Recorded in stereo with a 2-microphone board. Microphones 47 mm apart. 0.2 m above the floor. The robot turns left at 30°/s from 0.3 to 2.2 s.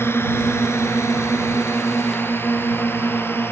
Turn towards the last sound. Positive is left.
turn(degrees=55)  # may be behind; listen again after turning